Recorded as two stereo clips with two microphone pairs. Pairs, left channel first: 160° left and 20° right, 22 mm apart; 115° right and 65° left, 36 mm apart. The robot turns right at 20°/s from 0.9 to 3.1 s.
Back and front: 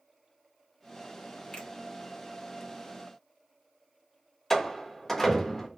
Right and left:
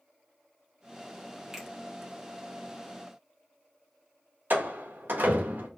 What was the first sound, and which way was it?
A finger snap, 140° left.